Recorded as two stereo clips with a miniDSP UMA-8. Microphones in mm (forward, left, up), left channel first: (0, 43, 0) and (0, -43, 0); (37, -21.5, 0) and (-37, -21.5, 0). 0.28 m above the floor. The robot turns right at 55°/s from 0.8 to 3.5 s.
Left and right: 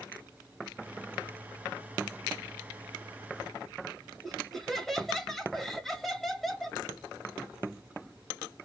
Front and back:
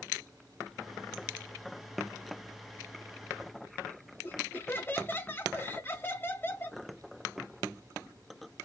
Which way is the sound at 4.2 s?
5° left.